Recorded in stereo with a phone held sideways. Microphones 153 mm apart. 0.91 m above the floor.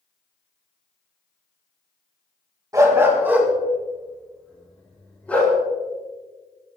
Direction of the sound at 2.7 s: 20° right (ahead or behind).